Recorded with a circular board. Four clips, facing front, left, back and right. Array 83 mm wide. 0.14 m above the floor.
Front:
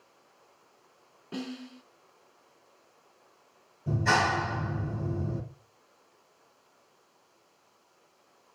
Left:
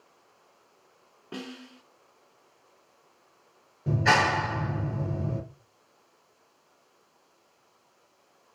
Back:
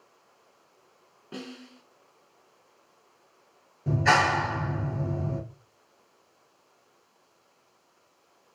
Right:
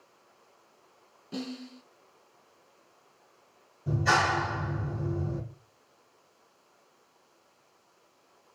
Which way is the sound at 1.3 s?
90° left.